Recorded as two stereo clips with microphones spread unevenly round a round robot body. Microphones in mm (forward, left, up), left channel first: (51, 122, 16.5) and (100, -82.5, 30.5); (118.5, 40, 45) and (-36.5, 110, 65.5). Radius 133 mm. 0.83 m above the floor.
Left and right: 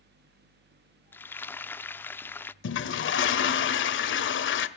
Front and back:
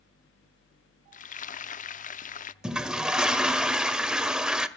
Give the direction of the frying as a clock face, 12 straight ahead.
11 o'clock.